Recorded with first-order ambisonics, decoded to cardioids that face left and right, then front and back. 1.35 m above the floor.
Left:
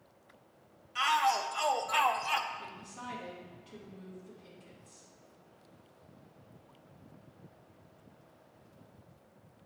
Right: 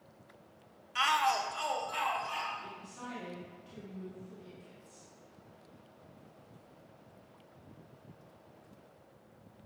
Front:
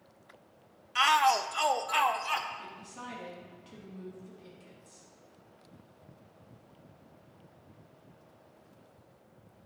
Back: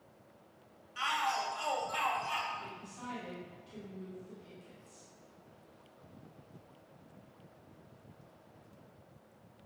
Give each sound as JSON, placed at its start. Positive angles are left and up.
{"t": 0.9, "sound": "a shout", "azimuth_deg": -15, "distance_m": 0.7}
{"t": 2.6, "sound": "a woman speaking", "azimuth_deg": 5, "distance_m": 3.0}